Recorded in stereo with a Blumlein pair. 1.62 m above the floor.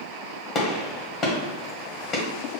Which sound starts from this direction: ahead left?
A gunshot, at 0.6 s.